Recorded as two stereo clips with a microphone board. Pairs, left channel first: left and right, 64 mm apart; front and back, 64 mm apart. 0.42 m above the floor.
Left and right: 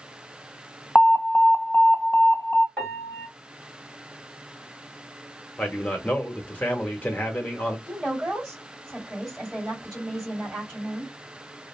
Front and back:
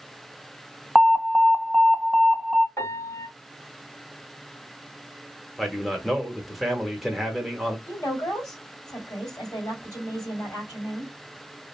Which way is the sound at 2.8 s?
20° left.